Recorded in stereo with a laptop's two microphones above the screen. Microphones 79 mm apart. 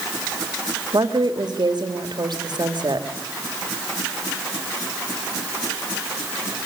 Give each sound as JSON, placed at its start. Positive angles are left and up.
{"t": 0.9, "sound": "a woman speaking", "side_deg": -65, "distance_m": 2.5}